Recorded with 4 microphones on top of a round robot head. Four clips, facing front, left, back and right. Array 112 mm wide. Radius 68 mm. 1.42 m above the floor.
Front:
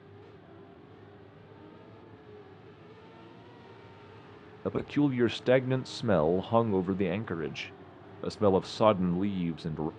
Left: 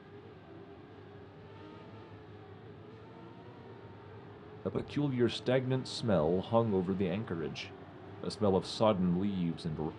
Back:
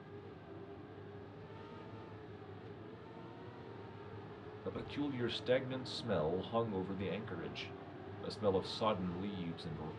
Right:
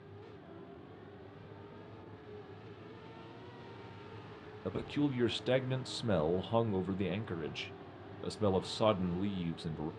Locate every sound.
4.7 s a man speaking: 10° left, 0.5 m